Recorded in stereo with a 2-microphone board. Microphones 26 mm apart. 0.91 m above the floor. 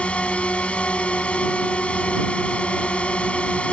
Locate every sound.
0.0 s a drone: 55° left (ahead or behind)